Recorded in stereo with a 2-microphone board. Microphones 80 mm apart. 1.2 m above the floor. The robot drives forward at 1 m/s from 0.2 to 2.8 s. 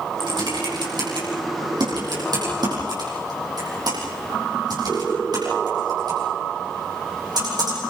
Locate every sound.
0.2 s typing on a keyboard: 65° right (ahead or behind), 9.5 m; by 7.8 s 50° right (ahead or behind), 11 m